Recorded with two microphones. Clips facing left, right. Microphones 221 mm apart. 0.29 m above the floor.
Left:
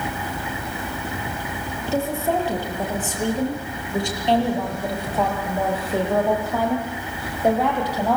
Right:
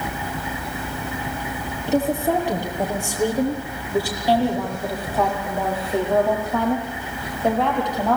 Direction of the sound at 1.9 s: 20° right (ahead or behind).